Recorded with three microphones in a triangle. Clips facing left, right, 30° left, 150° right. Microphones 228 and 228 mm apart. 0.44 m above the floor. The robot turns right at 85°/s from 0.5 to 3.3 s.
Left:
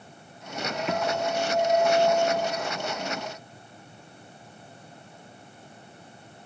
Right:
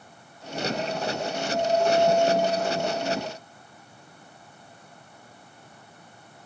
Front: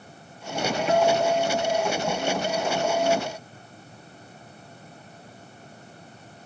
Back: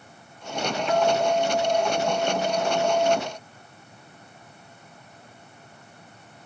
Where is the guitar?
95° left; by 3.2 s 70° right.